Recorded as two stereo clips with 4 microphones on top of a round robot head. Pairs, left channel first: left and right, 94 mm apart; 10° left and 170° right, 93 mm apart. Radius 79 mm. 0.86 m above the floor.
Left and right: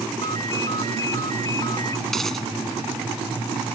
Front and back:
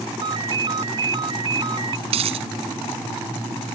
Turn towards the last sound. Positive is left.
turn(degrees=175)